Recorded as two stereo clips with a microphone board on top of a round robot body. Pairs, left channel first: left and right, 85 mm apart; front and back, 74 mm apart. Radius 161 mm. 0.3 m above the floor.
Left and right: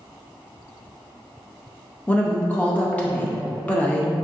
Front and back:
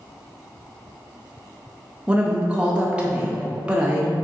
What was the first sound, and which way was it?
A woman speaking, 135° left.